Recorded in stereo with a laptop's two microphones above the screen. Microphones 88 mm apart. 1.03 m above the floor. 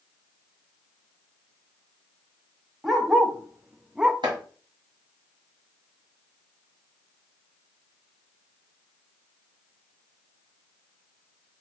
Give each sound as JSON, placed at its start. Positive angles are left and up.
{"t": 2.8, "sound": "a dog barking", "side_deg": -5, "distance_m": 1.1}
{"t": 4.2, "sound": "chopping", "side_deg": -65, "distance_m": 1.9}